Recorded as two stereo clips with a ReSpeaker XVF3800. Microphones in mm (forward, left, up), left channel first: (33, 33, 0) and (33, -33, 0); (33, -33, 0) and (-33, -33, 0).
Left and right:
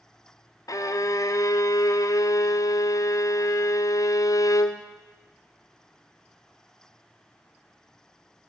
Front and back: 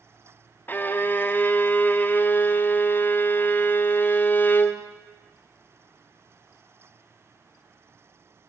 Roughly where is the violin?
Ahead left.